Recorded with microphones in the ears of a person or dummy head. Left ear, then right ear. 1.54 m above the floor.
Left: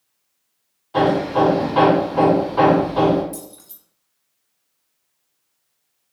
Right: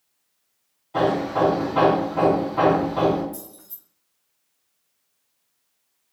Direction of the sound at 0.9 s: 20° left (ahead or behind).